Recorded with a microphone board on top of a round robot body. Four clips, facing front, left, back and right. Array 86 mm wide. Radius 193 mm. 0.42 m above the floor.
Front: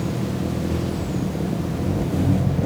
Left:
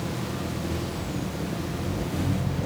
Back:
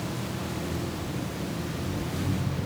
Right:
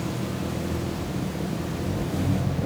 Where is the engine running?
15° right.